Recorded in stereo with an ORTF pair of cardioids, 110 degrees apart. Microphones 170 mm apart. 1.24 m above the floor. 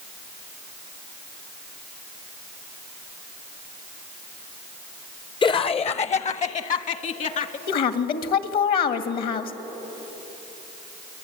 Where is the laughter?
30° left, 0.7 m; by 7.6 s 50° left, 2 m.